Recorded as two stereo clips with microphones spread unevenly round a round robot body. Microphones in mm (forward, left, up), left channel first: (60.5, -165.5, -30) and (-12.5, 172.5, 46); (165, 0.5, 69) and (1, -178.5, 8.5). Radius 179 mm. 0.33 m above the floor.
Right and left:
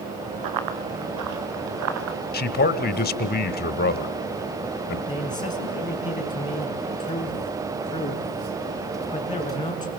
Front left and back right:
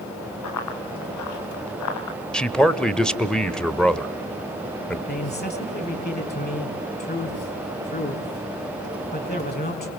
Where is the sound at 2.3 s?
55° right, 1.1 m.